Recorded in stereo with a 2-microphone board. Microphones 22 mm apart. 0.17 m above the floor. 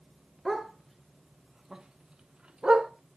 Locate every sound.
0.5 s a dog barking: centre (ahead or behind), 1.4 m; by 2.9 s 50° right (ahead or behind), 1.0 m